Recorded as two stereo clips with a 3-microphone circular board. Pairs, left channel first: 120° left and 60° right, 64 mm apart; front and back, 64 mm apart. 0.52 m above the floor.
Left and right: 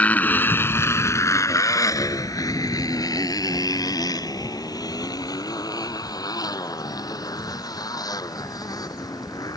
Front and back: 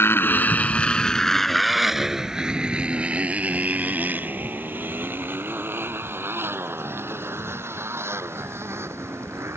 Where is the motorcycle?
55° left; by 9.6 s 135° left.